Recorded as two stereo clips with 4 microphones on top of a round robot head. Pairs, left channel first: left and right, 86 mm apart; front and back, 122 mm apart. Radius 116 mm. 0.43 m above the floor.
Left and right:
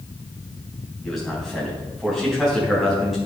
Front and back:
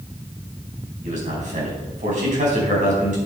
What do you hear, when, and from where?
1.0 s a man speaking: straight behind, 5 m